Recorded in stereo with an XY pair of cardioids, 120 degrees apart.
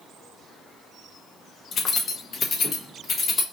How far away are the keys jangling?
About 0.9 m.